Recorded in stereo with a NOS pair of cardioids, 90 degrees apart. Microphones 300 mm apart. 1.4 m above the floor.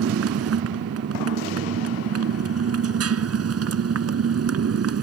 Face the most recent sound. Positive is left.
turn(degrees=-55)